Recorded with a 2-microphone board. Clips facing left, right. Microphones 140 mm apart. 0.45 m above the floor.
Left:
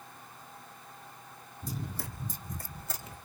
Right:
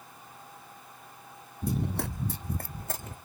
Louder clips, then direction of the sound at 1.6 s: Right 9 dB; 60° right (ahead or behind).